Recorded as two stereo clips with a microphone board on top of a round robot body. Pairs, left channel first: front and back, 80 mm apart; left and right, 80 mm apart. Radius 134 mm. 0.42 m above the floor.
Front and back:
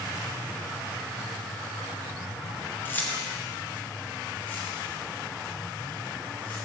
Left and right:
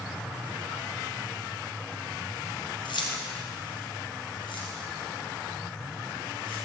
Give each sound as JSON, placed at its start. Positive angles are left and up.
{"t": 2.9, "sound": "keys jangling", "azimuth_deg": 65, "distance_m": 2.0}